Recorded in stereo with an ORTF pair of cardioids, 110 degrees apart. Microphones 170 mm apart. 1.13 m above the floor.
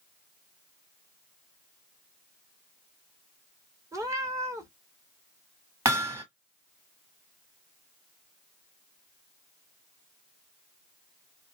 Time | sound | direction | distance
3.9 | a cat meowing | 20° right | 0.9 m
5.8 | hammering | 15° right | 1.4 m